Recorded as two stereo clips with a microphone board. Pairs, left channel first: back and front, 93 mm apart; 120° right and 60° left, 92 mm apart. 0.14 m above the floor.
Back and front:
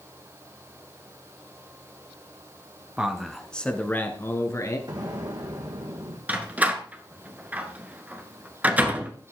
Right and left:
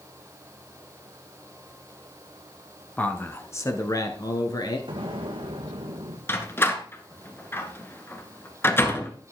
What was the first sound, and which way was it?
A man speaking, 65° right.